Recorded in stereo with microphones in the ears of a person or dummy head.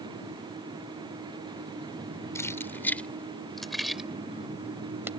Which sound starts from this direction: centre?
Keys jangling, at 2.4 s.